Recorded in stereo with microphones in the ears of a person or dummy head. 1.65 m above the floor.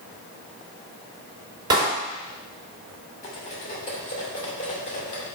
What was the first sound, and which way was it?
A clap, 25° right (ahead or behind).